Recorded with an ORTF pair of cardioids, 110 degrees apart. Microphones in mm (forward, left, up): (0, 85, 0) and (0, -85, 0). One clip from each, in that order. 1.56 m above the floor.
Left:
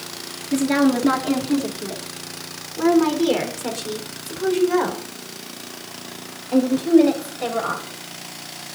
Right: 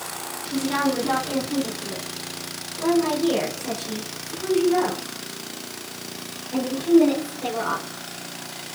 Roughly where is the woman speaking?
Ahead left.